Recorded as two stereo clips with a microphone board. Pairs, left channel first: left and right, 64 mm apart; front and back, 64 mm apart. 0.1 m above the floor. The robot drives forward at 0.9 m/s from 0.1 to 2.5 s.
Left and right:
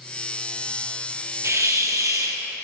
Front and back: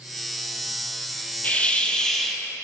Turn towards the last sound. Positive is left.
turn(degrees=-90)